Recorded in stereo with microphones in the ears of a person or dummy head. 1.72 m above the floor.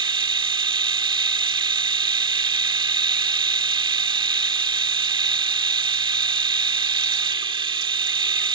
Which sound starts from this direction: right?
A machine running, at 0.0 s.